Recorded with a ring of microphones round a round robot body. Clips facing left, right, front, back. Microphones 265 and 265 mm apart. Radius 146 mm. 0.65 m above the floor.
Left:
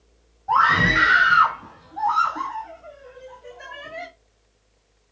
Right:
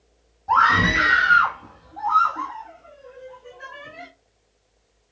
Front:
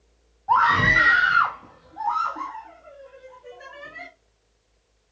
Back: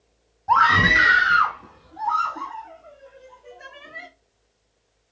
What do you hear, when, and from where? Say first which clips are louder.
0.5 s a scream: right 1 dB, back 2 dB; 155° right, 0.8 m; by 4.1 s 80° left, 1.6 m